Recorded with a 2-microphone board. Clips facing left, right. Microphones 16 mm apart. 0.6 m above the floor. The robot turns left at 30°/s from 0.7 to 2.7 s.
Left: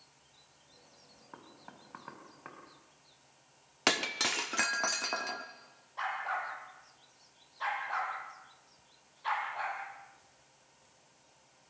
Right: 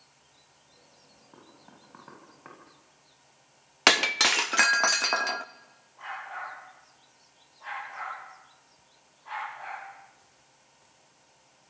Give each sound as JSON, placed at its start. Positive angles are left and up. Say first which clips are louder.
{"t": 1.3, "sound": "knocking", "louder": "left 2 dB", "side_deg": 40, "distance_m": 4.0}
{"t": 3.9, "sound": "breaking glass", "louder": "right 9 dB", "side_deg": -35, "distance_m": 0.5}
{"t": 6.0, "sound": "a dog barking", "louder": "left 2 dB", "side_deg": 85, "distance_m": 8.5}